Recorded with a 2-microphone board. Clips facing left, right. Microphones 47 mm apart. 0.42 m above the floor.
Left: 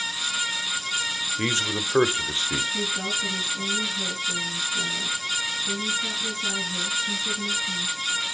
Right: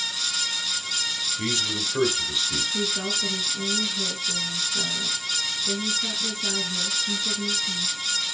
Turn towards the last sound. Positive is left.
turn(degrees=-10)  # may be behind; listen again after turning